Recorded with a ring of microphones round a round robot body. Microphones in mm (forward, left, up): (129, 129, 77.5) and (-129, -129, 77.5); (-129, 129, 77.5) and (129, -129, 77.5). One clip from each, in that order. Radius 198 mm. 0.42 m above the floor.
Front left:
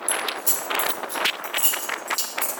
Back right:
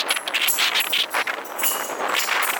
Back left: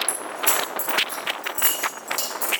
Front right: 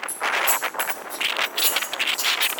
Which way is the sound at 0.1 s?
75° left.